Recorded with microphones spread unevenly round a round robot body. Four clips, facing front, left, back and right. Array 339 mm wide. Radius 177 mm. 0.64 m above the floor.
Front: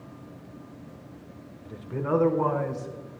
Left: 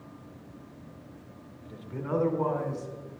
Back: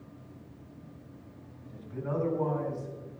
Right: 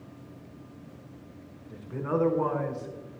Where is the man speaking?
5° left, 2.5 m; by 3.2 s 30° right, 3.5 m.